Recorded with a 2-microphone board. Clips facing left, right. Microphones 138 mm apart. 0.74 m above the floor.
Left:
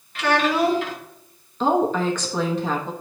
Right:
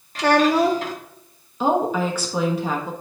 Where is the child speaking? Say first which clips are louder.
Right 3 dB; 35° right (ahead or behind), 1.1 m.